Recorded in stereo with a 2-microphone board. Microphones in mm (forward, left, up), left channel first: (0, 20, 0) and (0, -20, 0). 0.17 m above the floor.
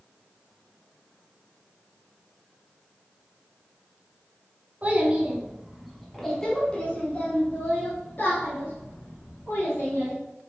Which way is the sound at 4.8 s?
40° right (ahead or behind).